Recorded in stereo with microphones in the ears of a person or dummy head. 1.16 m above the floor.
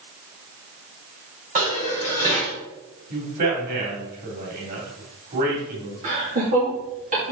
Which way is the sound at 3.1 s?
55° right (ahead or behind).